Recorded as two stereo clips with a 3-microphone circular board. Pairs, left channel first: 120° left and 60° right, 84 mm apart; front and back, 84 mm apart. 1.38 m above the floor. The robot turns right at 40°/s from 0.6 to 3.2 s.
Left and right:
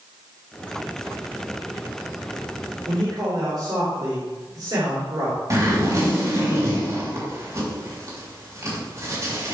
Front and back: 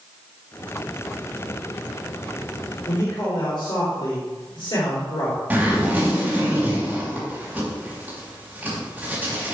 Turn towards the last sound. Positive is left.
turn(degrees=-110)